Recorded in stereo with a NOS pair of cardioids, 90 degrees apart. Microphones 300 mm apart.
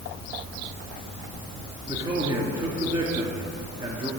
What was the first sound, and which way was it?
A man speaking, 20° right.